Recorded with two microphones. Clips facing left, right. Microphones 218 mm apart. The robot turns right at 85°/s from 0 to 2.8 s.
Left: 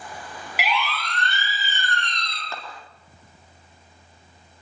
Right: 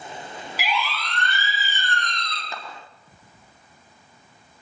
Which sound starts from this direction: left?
A siren, at 0.6 s.